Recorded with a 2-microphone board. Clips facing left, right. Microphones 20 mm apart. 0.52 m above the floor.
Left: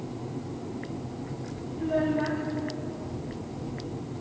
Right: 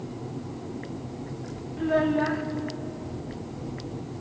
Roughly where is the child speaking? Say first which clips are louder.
Right 3 dB; right.